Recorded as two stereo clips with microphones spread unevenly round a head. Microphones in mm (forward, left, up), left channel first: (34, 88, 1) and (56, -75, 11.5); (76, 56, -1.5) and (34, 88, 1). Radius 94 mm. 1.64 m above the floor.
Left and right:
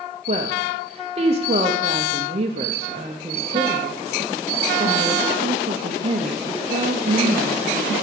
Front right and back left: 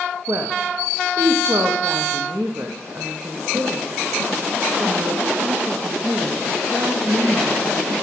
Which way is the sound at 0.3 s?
140° right.